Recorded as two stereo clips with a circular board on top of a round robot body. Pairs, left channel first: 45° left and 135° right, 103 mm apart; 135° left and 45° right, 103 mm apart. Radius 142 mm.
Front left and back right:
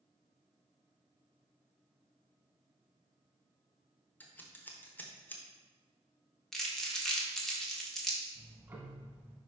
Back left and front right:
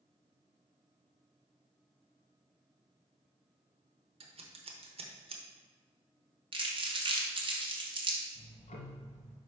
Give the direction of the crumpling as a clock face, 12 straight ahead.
1 o'clock.